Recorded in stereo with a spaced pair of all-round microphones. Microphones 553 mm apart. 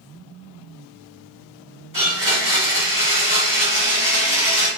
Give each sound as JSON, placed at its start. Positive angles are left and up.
{"t": 1.9, "sound": "a blender", "side_deg": -35, "distance_m": 1.7}